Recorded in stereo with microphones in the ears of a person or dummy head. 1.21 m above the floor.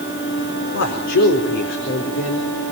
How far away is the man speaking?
About 4 m.